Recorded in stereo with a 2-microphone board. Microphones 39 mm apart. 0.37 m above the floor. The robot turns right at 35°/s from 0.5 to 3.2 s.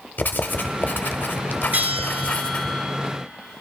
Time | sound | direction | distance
0.2 | writing | 75° left | 0.6 m
1.7 | a bell | 50° right | 0.7 m